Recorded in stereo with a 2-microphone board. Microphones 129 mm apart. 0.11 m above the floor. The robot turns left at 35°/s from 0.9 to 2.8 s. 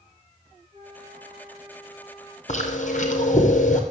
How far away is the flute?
About 3.5 m.